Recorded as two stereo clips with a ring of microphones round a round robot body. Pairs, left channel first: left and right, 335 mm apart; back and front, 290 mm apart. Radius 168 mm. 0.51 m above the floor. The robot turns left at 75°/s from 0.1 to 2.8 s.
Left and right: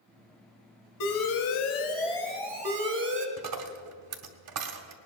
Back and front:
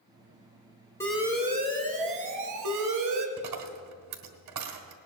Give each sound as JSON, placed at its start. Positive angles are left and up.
{"t": 1.0, "sound": "an alarm", "azimuth_deg": 100, "distance_m": 1.9}
{"t": 3.4, "sound": "a dropped coin", "azimuth_deg": -45, "distance_m": 1.1}